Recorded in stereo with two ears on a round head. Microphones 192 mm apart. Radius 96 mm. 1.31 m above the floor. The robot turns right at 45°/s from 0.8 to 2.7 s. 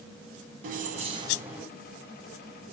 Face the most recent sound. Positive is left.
turn(degrees=45)